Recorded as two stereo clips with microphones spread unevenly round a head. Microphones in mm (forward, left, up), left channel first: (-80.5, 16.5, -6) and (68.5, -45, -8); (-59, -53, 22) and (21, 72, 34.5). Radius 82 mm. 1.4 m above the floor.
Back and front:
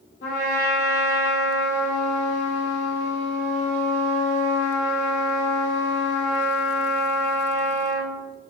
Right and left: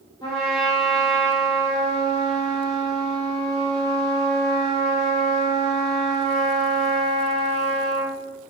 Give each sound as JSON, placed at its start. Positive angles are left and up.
{"t": 0.2, "sound": "a trumpet", "azimuth_deg": 175, "distance_m": 1.1}